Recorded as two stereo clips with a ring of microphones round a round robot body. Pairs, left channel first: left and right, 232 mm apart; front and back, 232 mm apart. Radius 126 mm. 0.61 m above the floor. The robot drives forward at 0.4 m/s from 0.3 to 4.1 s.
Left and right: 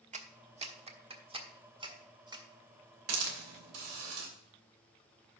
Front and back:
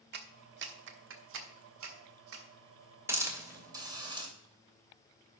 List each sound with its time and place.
0.1 s a clap: 145° right, 1.2 m; by 2.4 s 160° right, 1.9 m
3.1 s a hiss: 100° right, 2.5 m; by 4.3 s 110° right, 2.5 m